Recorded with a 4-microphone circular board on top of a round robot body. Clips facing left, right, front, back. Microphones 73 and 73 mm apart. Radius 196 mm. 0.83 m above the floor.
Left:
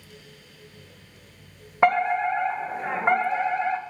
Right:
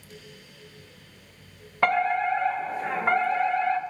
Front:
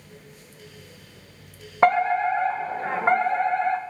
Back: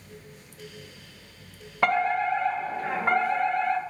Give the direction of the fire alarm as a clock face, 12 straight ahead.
11 o'clock.